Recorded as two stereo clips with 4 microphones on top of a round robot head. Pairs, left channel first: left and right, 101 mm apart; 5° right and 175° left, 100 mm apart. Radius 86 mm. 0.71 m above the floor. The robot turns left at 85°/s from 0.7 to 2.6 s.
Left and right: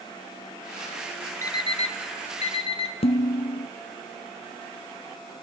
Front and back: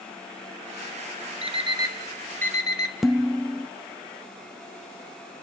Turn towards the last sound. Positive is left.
turn(degrees=90)